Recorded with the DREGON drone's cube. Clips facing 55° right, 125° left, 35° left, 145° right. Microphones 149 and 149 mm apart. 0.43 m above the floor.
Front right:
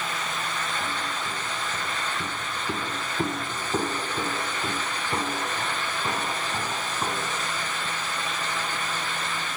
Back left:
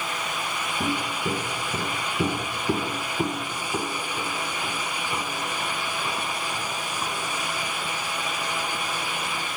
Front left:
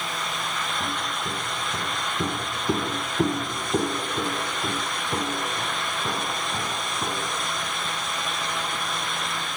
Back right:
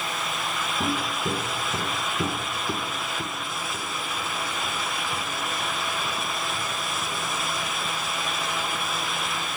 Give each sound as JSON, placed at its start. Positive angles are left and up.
{"t": 0.8, "sound": "footsteps", "azimuth_deg": 160, "distance_m": 1.3}